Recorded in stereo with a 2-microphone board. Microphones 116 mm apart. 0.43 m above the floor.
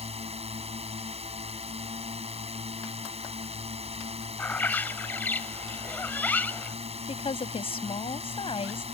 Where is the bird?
15° left (ahead or behind).